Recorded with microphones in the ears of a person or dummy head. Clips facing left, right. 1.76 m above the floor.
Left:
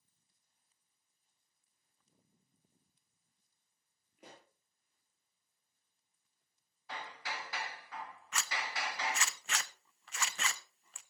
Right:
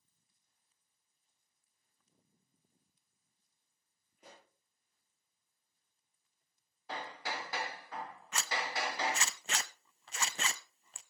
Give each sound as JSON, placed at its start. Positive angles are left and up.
{"t": 4.2, "sound": "a pop", "side_deg": 60, "distance_m": 8.5}
{"t": 6.9, "sound": "hammering", "side_deg": -35, "distance_m": 1.1}
{"t": 8.3, "sound": "a zipper", "side_deg": -25, "distance_m": 0.5}